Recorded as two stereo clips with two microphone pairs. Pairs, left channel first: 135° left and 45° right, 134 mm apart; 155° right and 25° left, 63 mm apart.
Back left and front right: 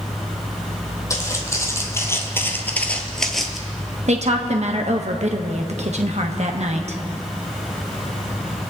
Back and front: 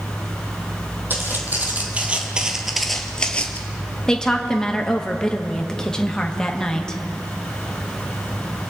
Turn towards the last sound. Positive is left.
turn(degrees=-75)